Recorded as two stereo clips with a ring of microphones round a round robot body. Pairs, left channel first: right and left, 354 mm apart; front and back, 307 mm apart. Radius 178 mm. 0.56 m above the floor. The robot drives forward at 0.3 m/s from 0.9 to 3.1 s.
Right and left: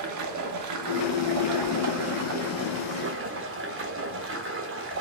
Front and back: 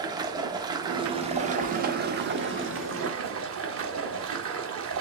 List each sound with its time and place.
0.0 s running water: 105° left, 1.0 m; by 5.0 s 140° left, 1.3 m